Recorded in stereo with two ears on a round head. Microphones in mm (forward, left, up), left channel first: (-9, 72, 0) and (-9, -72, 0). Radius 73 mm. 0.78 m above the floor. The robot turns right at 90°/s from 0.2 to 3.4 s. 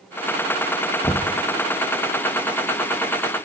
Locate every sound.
1.0 s knocking: 15° left (ahead or behind), 0.6 m; by 1.4 s 25° left (ahead or behind), 0.6 m